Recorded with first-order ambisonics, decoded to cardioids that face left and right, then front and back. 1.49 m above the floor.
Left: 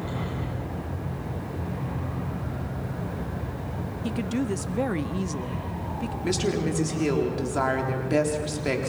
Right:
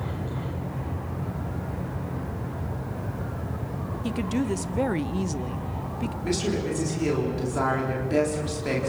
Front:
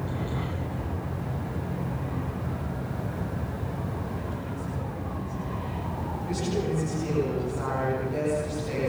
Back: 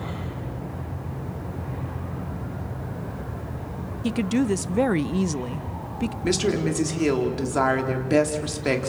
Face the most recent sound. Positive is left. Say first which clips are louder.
# left 1 dB, back 7 dB
turn(degrees=170)